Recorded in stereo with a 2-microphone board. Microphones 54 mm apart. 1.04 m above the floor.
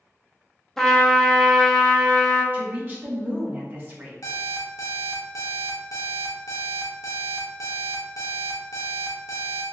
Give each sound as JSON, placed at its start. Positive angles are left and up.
{"t": 0.8, "sound": "a trumpet", "side_deg": 5, "distance_m": 0.6}
{"t": 2.5, "sound": "a woman speaking", "side_deg": -35, "distance_m": 0.9}
{"t": 4.2, "sound": "an alarm clock", "side_deg": 80, "distance_m": 0.7}